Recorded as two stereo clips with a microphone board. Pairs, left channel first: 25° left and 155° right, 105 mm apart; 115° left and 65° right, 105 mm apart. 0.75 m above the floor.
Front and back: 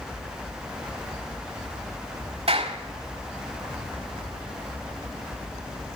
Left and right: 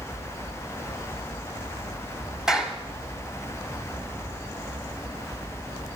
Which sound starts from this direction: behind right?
A clap, at 2.5 s.